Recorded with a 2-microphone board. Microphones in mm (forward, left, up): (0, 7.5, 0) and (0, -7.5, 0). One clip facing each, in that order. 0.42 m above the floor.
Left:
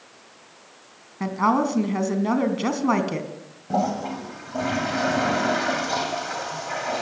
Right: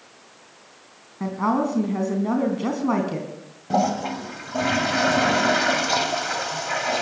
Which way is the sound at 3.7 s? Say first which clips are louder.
Right 2 dB; 30° right (ahead or behind).